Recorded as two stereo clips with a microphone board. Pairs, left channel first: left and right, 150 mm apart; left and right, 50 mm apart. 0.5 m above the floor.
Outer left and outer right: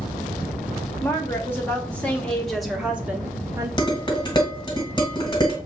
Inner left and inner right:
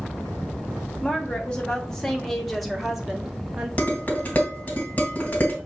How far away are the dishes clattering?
About 1.6 m.